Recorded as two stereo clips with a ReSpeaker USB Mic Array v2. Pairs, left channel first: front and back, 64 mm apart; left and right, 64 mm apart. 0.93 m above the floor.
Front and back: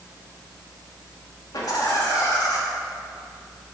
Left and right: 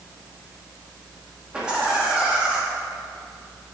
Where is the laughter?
15° right, 1.7 m.